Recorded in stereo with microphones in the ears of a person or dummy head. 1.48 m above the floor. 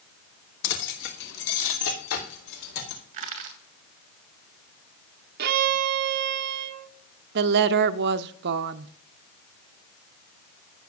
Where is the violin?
55° right (ahead or behind), 0.7 m.